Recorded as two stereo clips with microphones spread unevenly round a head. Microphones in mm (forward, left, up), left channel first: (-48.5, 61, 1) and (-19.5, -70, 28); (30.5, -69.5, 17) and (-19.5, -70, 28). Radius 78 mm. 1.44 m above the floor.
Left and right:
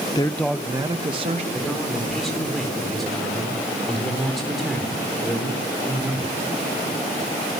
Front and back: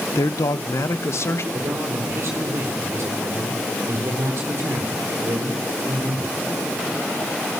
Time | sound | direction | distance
0.1 | a man speaking | 35° left | 0.8 m
1.5 | a man speaking | 165° right | 4 m